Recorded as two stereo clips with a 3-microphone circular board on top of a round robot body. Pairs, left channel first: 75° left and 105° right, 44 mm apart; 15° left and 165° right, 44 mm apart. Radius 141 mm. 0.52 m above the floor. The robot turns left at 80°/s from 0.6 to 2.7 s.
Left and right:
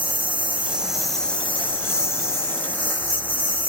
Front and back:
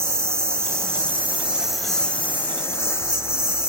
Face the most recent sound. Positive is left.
turn(degrees=30)